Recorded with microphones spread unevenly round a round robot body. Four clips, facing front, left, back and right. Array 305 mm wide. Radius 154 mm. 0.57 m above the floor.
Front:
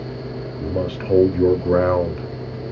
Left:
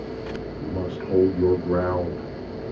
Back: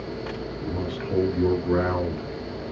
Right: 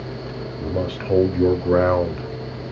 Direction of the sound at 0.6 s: 35° right.